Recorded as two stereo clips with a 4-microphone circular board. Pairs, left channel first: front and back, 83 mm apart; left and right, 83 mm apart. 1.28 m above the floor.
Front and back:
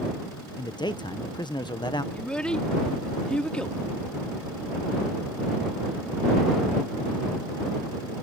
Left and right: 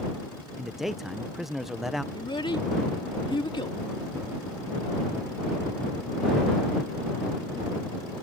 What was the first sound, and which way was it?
A man speaking, straight ahead.